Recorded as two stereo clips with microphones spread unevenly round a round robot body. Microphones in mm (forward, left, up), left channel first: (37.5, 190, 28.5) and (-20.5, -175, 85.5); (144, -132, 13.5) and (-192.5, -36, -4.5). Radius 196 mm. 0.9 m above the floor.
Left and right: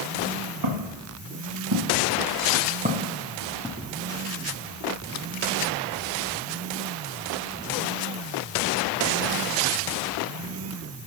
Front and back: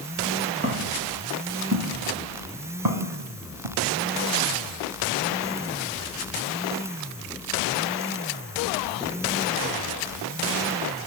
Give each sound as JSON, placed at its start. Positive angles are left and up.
{"t": 0.6, "sound": "footsteps", "azimuth_deg": -135, "distance_m": 5.0}